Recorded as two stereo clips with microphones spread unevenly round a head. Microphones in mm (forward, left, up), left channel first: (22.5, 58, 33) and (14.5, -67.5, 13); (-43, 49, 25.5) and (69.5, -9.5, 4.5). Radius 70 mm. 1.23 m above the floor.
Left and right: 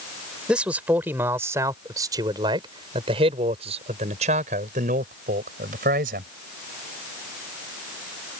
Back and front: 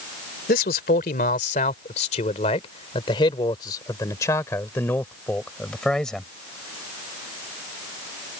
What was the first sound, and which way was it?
A man speaking, straight behind.